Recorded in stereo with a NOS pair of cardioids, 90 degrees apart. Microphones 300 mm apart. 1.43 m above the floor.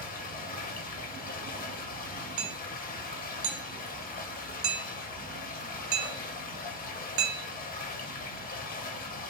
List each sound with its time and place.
0.0 s running water: 30° left, 1.9 m
2.4 s hammering: 65° right, 0.7 m